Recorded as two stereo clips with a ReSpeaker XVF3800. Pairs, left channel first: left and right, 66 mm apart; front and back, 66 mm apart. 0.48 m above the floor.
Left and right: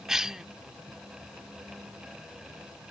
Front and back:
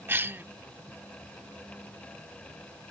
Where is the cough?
170° right.